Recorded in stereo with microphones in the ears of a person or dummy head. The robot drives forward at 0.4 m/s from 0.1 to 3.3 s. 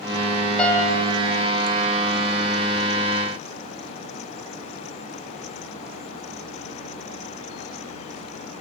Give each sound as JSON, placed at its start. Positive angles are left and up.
{"t": 0.6, "sound": "a piano", "side_deg": 5, "distance_m": 4.5}